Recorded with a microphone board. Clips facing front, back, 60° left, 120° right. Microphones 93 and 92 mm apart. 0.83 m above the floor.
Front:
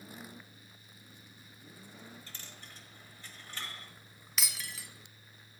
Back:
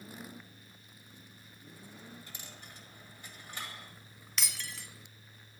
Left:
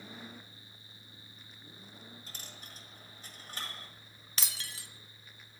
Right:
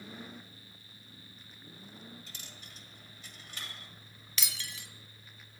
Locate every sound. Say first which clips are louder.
2.3 s a dropped coin: back 1 dB, left 1 dB; 110° left, 1.6 m
4.4 s breaking glass: even, right 1 dB; 85° left, 0.9 m